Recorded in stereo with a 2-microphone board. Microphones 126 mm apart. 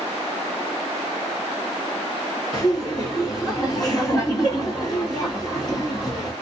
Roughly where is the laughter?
Left.